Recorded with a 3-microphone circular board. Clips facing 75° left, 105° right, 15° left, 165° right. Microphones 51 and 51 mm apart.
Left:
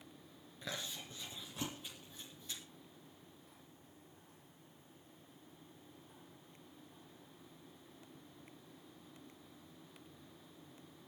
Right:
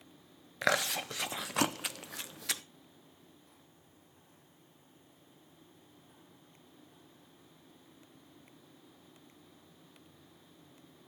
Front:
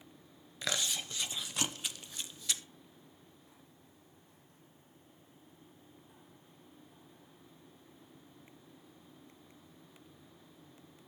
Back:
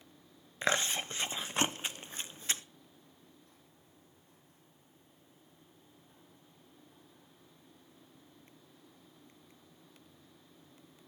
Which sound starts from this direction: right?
Chewing, at 0.6 s.